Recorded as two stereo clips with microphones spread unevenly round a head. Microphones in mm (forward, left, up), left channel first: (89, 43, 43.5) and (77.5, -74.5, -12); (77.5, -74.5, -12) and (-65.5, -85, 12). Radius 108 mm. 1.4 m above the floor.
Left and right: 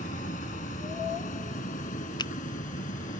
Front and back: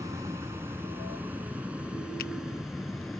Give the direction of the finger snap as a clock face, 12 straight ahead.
10 o'clock.